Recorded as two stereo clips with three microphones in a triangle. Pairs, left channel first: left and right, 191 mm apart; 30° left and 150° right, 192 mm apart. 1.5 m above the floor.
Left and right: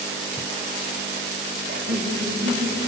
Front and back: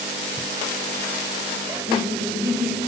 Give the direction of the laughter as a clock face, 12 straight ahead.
2 o'clock.